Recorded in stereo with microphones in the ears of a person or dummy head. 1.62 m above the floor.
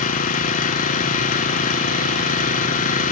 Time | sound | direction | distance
0.0 | an engine running | 40° left (ahead or behind) | 0.9 m